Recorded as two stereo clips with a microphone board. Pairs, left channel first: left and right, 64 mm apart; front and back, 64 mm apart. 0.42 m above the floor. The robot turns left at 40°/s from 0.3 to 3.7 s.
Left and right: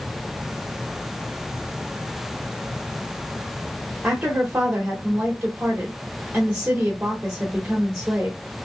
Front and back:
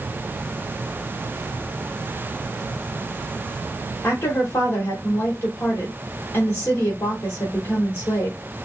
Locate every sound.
4.0 s a woman speaking: 20° right, 1.3 m